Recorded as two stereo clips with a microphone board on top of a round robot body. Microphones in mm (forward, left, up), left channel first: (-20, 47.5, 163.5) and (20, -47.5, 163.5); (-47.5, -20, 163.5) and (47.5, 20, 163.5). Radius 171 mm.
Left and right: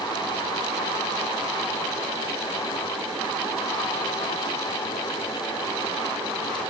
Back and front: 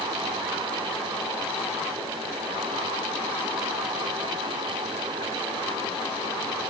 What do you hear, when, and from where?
Only background noise.